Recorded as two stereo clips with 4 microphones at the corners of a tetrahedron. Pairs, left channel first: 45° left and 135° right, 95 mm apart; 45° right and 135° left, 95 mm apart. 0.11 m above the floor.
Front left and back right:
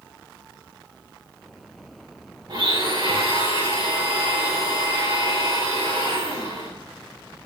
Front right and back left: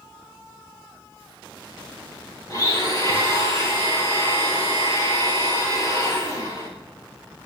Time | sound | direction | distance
2.5 | a blender | 95° right | 7.5 m